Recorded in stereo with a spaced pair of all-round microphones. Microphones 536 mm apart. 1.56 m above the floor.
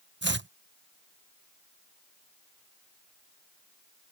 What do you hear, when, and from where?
0.2 s chopping: 20° right (ahead or behind)